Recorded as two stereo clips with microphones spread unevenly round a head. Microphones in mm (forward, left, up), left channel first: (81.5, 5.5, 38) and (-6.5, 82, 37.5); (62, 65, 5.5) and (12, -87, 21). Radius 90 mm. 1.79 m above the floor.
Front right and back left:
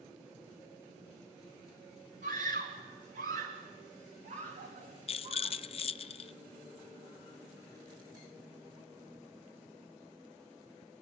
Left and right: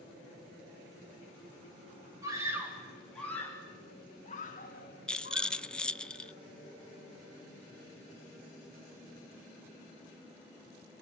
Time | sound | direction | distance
2.2 | a scream | straight behind | 2.5 m
5.1 | a rattle | 15° right | 0.7 m